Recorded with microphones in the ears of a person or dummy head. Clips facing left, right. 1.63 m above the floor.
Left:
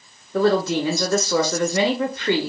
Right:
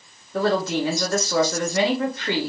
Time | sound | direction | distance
0.3 | a woman speaking | 65° left (ahead or behind) | 0.7 m